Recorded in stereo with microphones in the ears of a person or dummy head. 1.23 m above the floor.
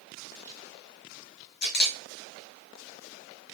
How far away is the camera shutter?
About 0.7 m.